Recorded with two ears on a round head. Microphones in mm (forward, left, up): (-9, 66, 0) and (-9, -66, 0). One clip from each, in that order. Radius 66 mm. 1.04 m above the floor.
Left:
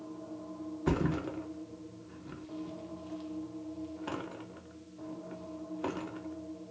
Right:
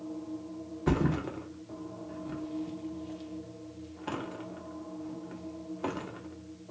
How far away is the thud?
About 0.6 m.